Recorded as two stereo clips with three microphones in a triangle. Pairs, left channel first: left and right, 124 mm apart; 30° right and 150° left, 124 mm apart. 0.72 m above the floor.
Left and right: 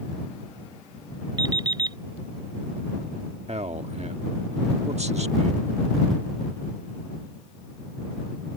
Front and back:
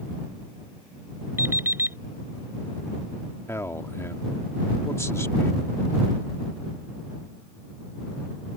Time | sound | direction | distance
1.4 | an alarm clock | 140° right | ?
3.5 | a man speaking | 95° right | ?